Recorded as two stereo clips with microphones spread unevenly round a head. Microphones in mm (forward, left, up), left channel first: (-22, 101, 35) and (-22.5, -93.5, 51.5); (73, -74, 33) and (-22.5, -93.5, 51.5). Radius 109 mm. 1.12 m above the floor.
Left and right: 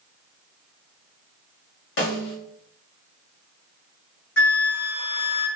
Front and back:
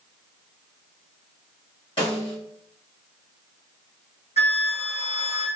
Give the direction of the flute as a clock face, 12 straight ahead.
10 o'clock.